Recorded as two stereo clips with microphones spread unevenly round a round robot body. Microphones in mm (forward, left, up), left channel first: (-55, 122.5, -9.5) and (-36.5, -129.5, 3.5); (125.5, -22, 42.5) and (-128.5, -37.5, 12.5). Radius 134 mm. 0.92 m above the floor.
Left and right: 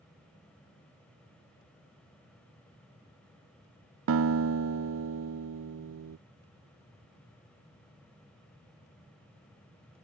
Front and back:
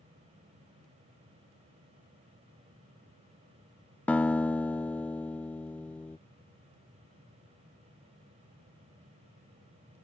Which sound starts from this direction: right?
A guitar, at 4.1 s.